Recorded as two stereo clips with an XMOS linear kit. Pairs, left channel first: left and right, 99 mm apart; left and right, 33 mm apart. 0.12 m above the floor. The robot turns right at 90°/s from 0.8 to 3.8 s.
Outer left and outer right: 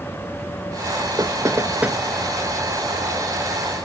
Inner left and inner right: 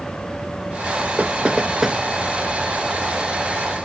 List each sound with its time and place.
1.2 s knocking: 40° right (ahead or behind), 1.1 m; by 2.0 s 5° right (ahead or behind), 1.1 m